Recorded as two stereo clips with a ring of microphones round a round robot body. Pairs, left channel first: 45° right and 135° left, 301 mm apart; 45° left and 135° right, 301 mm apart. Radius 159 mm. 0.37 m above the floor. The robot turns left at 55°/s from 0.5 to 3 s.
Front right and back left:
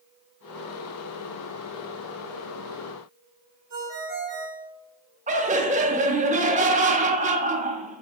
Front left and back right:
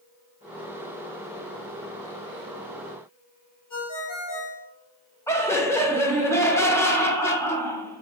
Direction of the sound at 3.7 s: 80° left.